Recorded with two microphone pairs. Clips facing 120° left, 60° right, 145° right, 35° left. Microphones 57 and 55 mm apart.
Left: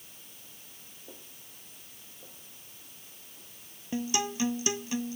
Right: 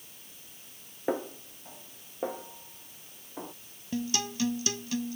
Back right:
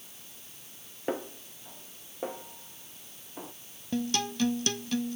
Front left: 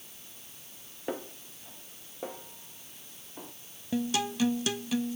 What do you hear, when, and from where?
1.1 s a snare drum: 65° right
3.9 s a guitar: 105° left